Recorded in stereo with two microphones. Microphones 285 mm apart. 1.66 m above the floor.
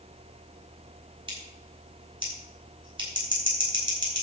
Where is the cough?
I don't hear a cough.